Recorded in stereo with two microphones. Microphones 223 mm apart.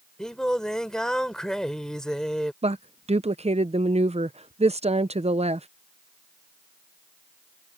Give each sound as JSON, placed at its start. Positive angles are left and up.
{"t": 0.2, "sound": "singing", "side_deg": 5}
{"t": 2.6, "sound": "a woman speaking", "side_deg": -30}